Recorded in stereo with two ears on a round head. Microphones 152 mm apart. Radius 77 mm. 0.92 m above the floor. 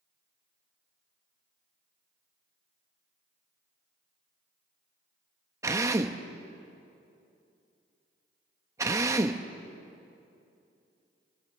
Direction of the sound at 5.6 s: 20° right (ahead or behind).